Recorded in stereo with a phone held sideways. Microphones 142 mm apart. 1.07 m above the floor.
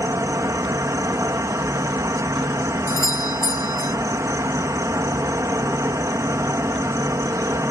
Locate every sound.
0.0 s an insect: 25° right (ahead or behind)
2.9 s a doorbell: 80° left